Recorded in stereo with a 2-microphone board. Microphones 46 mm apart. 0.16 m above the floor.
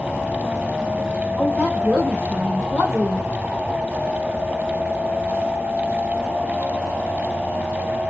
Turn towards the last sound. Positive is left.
turn(degrees=-10)  # may be behind; listen again after turning